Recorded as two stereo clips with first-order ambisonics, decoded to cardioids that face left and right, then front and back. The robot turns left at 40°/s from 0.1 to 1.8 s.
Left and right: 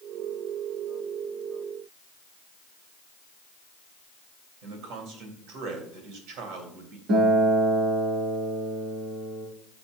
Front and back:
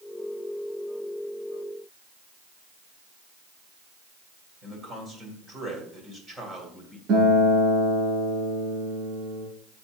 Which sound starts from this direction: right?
A man speaking, at 4.6 s.